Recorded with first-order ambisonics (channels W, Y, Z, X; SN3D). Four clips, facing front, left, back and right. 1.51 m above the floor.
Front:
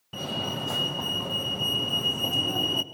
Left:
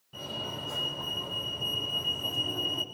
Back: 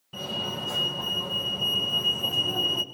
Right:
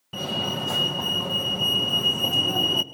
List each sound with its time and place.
0.1 s a fire alarm: 70° right, 1.6 m